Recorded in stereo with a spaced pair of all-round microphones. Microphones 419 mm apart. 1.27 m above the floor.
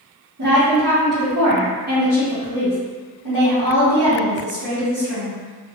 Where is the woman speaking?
55° right (ahead or behind), 1.5 m.